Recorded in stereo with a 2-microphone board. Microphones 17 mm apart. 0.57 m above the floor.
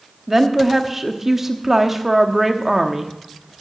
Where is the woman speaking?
15° right (ahead or behind), 0.9 m.